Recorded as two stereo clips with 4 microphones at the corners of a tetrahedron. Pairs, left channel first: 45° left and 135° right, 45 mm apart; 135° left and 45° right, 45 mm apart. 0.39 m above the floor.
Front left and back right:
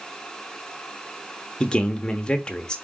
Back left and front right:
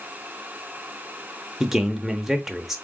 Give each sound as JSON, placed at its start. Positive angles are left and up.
{"t": 1.6, "sound": "a man speaking", "azimuth_deg": 25, "distance_m": 0.9}